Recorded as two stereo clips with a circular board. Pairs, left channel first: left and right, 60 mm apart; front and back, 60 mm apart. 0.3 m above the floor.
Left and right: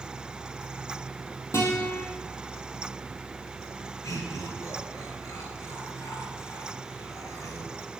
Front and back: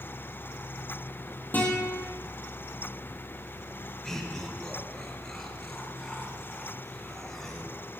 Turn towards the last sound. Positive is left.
turn(degrees=80)